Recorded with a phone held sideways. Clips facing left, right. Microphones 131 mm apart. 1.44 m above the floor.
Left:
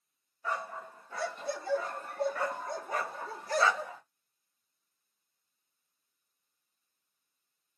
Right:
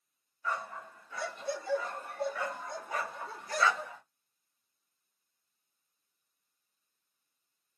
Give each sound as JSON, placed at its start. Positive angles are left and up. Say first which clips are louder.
{"t": 0.4, "sound": "a dog barking", "louder": "left 1 dB", "side_deg": 35, "distance_m": 1.7}